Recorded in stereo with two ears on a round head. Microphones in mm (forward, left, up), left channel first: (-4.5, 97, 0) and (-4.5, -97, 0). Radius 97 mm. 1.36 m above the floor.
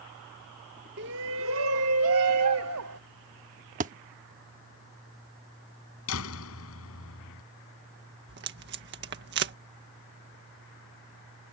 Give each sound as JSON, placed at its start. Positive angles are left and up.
{"t": 1.0, "sound": "a shout", "side_deg": -50}
{"t": 3.8, "sound": "a thud", "side_deg": -35}
{"t": 6.1, "sound": "a door slam", "side_deg": 65}
{"t": 8.3, "sound": "tape being pulled", "side_deg": -50}